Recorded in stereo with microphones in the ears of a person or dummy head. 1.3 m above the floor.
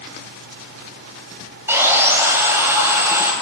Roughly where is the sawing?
Centre.